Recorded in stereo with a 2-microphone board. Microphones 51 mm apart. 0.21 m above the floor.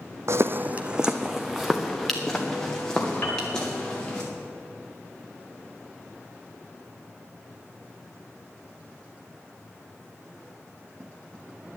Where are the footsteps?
65° right (ahead or behind), 0.6 m; by 4.2 s 15° left (ahead or behind), 4 m.